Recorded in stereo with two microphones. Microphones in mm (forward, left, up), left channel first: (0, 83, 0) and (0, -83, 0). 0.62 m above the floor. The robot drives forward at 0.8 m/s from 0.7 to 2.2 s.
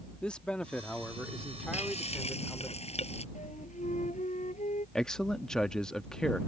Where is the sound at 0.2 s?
5° left (ahead or behind).